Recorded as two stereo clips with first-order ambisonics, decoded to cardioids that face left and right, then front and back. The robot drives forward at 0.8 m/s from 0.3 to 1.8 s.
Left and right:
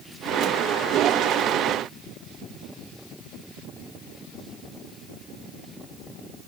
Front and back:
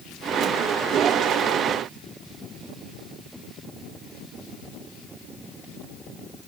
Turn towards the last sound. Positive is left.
No sound to turn to.